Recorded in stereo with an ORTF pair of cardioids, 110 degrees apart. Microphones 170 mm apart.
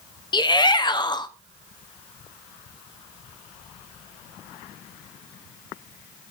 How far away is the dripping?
I don't hear dripping.